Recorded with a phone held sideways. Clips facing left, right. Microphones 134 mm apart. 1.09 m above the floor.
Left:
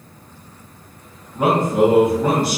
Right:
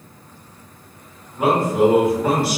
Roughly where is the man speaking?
Left.